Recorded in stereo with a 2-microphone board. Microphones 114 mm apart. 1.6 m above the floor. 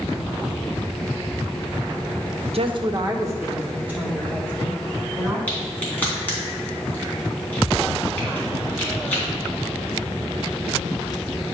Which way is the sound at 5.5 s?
15° left (ahead or behind).